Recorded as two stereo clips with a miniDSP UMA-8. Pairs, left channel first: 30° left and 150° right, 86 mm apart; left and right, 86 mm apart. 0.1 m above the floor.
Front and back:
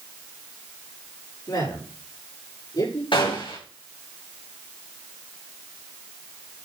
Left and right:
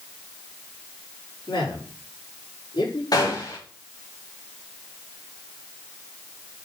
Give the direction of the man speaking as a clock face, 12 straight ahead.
10 o'clock.